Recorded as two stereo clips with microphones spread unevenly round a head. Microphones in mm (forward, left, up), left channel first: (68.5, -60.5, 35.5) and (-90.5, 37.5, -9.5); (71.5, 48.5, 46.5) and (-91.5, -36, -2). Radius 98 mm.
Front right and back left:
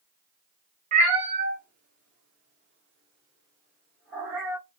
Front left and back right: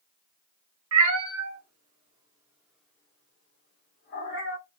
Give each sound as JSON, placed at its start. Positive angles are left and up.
{"t": 0.9, "sound": "a cat meowing", "azimuth_deg": -155, "distance_m": 1.1}